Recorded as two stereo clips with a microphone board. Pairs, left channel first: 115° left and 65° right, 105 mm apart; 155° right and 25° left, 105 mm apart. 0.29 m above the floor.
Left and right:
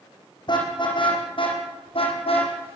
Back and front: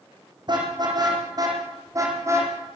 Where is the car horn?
70° left, 7 m; by 2.5 s 85° left, 6 m.